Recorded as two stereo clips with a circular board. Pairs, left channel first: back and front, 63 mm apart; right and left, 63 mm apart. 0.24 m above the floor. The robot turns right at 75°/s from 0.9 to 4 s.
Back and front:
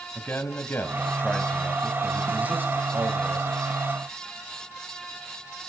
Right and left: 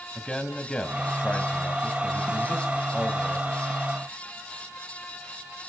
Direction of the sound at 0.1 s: 160° right.